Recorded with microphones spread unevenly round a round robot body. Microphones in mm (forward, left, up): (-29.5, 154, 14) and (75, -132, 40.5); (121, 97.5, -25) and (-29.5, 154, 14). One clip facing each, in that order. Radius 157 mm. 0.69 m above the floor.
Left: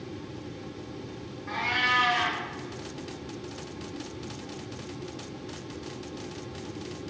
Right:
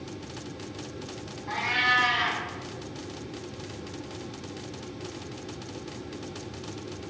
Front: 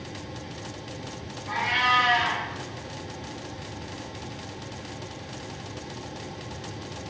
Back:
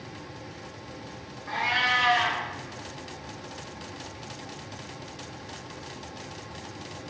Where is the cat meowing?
175° left, 1.1 m.